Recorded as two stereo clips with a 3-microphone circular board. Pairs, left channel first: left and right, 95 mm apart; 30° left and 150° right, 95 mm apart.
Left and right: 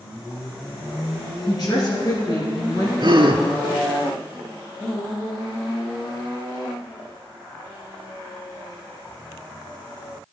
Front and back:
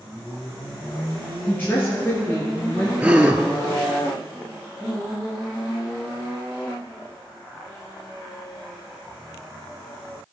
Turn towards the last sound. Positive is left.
turn(degrees=-75)